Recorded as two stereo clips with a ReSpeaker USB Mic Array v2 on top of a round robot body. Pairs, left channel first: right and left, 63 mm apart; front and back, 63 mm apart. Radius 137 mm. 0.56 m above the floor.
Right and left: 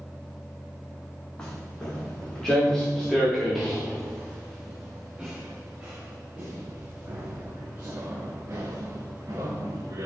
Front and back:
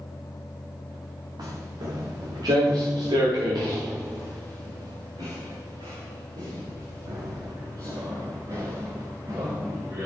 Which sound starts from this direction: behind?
Footsteps, at 1.4 s.